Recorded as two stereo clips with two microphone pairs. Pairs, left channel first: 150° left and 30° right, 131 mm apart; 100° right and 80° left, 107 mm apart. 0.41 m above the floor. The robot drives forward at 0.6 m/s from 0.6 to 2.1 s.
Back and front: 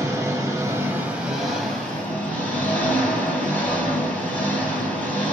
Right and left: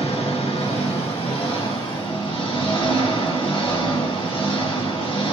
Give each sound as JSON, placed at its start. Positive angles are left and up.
{"t": 0.0, "sound": "an engine running", "azimuth_deg": -95, "distance_m": 1.2}